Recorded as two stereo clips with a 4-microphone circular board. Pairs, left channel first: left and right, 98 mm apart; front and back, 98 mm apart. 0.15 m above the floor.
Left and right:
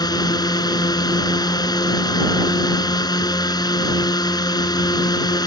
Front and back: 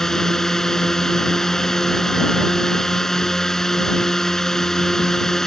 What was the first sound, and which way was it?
A drone, 85° left.